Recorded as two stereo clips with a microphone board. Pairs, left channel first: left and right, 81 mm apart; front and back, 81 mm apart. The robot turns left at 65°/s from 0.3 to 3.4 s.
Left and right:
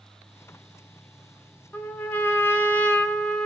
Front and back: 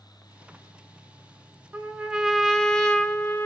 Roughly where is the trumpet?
Behind left.